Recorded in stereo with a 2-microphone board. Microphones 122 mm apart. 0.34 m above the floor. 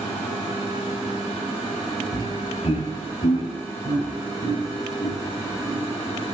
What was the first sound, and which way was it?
Laughter, 50° left (ahead or behind).